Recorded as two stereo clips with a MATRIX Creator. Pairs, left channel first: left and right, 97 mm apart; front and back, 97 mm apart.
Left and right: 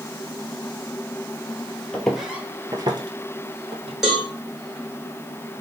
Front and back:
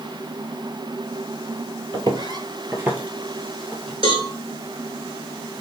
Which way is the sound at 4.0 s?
175° right.